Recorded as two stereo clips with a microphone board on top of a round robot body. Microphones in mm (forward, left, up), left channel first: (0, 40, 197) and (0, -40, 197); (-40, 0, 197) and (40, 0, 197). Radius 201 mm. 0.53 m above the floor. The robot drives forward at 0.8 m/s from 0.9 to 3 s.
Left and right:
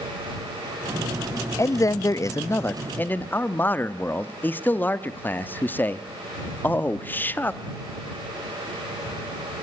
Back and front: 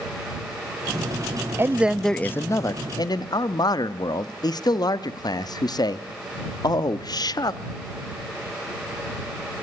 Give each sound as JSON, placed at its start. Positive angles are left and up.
{"t": 1.6, "sound": "a man speaking", "azimuth_deg": 50, "distance_m": 0.8}